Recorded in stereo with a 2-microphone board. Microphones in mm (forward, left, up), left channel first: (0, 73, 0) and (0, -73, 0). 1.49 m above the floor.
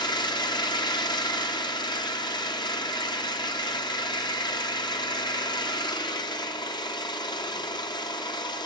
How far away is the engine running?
About 0.7 m.